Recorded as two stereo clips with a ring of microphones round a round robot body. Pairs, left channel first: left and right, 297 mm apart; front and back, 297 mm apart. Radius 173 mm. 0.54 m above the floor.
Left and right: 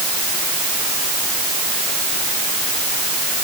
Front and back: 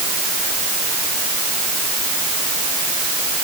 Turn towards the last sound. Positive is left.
No sound to turn to.